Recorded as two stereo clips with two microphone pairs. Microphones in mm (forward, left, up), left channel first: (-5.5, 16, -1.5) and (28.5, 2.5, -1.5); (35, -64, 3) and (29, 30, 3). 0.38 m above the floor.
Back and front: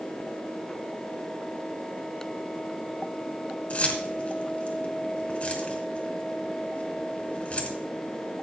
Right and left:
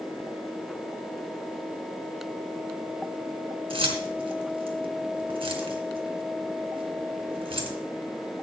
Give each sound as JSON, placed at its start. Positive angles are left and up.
{"t": 3.7, "sound": "keys jangling", "azimuth_deg": 105, "distance_m": 2.5}